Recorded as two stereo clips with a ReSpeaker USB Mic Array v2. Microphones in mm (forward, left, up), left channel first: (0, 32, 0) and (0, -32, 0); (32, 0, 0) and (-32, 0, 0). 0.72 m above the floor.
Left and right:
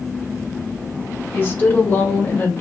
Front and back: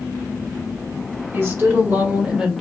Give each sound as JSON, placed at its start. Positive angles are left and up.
{"t": 1.3, "sound": "a woman speaking", "azimuth_deg": 140, "distance_m": 1.6}